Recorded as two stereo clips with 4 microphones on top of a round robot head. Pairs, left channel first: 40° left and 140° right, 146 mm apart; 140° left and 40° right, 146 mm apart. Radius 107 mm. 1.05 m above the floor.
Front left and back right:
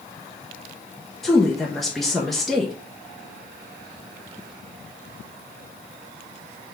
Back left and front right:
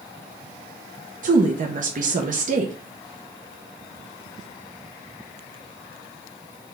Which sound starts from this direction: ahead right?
A woman speaking, at 1.2 s.